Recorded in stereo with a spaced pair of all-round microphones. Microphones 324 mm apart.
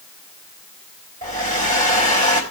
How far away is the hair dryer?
About 4 m.